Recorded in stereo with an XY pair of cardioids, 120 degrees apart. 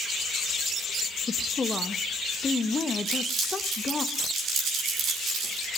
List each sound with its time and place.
1.3 s a woman speaking: 25° left, 0.8 m
3.0 s crumpling: 60° right, 8 m